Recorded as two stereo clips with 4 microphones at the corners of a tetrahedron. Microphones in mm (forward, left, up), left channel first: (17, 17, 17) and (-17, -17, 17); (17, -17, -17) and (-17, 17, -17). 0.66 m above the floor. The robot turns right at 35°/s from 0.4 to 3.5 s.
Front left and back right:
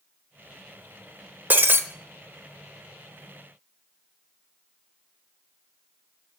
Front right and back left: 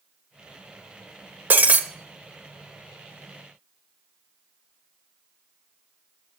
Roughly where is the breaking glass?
Behind.